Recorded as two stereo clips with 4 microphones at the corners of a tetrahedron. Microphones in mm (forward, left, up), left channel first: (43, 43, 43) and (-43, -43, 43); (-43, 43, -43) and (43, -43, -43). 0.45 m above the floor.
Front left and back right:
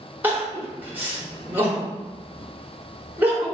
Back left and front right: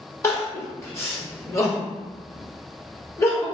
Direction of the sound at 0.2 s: 170° left.